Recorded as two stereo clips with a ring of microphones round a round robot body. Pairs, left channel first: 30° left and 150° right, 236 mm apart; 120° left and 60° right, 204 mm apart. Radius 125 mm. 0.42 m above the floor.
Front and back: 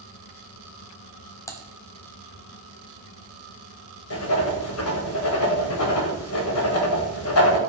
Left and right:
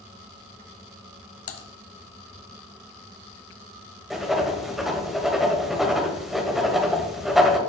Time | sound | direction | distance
1.5 | typing on a keyboard | 110° left | 1.1 m
4.1 | writing | 30° left | 1.9 m